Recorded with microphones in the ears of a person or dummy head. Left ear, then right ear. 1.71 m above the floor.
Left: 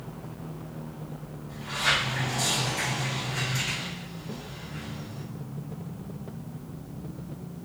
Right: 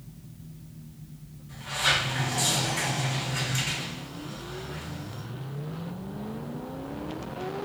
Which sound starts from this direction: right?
A sliding door, at 1.5 s.